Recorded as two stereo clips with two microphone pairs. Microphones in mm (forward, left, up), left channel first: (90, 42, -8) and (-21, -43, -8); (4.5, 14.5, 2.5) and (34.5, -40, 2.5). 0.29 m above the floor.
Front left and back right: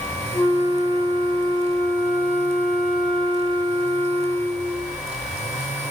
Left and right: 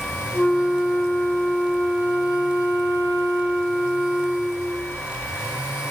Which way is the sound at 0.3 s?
110° left.